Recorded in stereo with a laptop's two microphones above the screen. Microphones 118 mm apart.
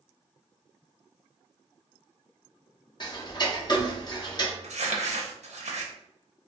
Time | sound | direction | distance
3.0 | ticking | 35° left (ahead or behind) | 0.6 m
4.6 | crumpling | 80° right | 0.6 m